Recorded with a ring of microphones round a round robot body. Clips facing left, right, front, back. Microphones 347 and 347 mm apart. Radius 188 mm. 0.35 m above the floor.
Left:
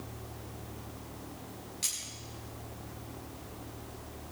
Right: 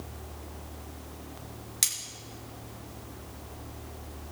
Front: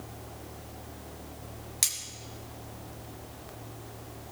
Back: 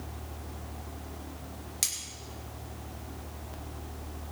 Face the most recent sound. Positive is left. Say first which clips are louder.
# even, back 2 dB
turn(degrees=-80)